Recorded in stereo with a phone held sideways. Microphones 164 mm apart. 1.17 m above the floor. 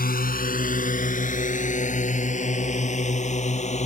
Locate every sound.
0.0 s a drone: 55° left (ahead or behind); by 3.9 s 40° left (ahead or behind)